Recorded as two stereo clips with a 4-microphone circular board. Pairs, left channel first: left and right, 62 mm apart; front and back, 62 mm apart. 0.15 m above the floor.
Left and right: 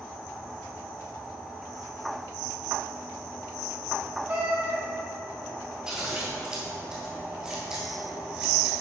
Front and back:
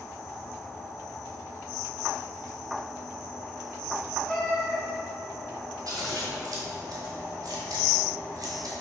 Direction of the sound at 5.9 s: 165° right.